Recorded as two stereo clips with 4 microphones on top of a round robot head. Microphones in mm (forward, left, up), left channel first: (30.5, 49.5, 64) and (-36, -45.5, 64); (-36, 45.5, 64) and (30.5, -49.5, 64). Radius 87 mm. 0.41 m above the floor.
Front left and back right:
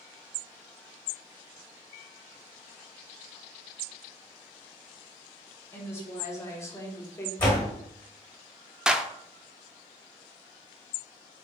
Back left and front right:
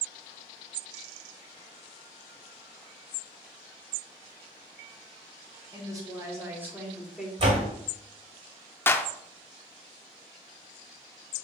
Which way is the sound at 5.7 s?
5° right.